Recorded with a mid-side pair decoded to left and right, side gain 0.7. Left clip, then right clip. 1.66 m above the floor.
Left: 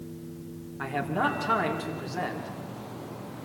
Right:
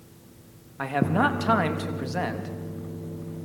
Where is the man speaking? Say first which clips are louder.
Right 4 dB; 35° right, 3.5 m.